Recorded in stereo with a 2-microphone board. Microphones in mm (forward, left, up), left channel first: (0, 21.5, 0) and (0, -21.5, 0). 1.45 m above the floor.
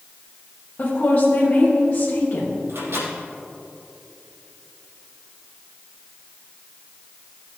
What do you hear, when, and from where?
0.8 s a woman speaking: 45° left (ahead or behind), 1.7 m
2.7 s a microwave: 90° right, 3 m